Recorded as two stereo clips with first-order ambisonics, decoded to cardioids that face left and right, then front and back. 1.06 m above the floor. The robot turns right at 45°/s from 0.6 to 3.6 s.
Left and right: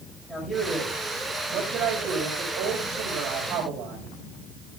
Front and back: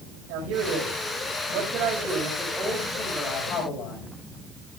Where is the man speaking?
175° left, 4.5 m; by 4.2 s 50° right, 4.5 m.